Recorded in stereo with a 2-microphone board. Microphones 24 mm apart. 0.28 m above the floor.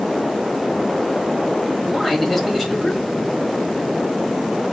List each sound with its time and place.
1.9 s a man speaking: centre (ahead or behind), 1.3 m